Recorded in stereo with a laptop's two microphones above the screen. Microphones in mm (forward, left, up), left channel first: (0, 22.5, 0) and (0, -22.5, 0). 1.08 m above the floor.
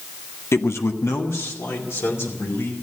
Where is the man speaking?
75° left (ahead or behind), 0.7 m.